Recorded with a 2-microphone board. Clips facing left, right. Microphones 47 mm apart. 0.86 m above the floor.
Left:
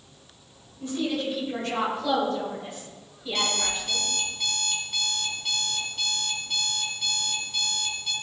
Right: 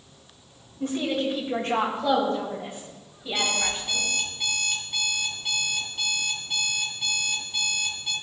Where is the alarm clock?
15° right (ahead or behind), 3 m.